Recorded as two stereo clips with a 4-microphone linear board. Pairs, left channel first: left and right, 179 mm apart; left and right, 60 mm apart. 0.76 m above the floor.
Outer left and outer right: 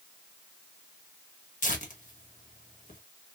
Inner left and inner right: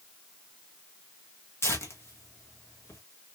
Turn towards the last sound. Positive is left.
turn(degrees=45)  # may be behind; listen again after turning